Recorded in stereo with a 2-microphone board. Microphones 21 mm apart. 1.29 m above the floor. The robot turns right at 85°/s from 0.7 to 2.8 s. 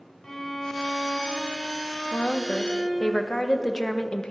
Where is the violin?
25° left, 2 m; by 3.1 s 155° right, 2 m.